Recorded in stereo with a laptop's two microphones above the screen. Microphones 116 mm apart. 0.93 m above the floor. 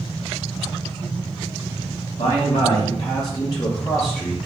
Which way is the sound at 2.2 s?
65° left (ahead or behind).